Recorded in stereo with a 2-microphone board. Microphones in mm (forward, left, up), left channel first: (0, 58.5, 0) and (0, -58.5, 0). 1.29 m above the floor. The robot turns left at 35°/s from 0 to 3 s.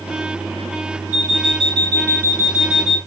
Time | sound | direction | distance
1.1 | an alarm clock | 165° right | 1.3 m